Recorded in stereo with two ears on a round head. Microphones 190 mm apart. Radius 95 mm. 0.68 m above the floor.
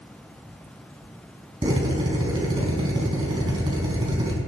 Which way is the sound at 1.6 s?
20° right (ahead or behind).